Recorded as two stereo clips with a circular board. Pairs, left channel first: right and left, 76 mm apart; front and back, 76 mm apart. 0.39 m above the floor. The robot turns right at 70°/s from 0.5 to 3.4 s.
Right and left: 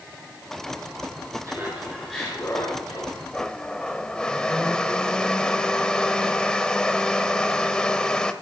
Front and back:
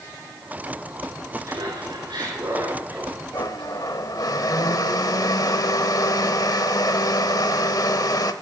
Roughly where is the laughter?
Behind left.